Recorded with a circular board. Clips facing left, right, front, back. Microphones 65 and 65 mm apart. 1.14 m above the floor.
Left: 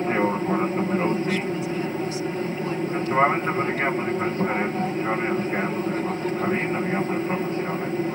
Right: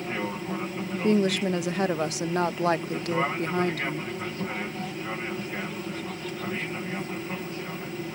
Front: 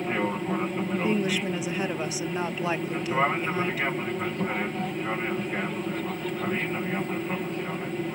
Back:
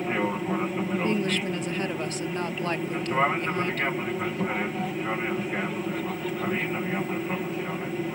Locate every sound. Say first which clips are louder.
0.0 s an aircraft: left 9 dB, back 1 dB; 95° left
1.0 s a woman speaking: even, front 2 dB; 80° right